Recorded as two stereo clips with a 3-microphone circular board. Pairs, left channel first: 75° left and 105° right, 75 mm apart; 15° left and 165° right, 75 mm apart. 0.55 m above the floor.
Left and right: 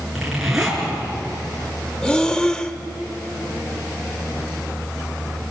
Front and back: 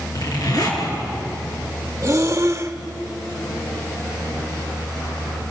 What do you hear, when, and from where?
0.1 s a zipper: 20° right, 6.5 m
2.0 s breathing: 150° left, 1.0 m